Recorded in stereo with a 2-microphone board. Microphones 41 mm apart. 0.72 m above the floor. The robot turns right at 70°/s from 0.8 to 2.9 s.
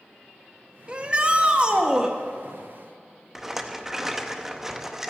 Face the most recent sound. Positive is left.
turn(degrees=-10)  # may be behind; listen again after turning